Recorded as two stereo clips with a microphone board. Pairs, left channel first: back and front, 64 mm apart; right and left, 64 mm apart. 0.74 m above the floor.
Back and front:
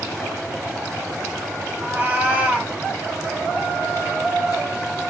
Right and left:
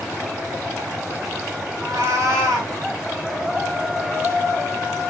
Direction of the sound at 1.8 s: 60° left.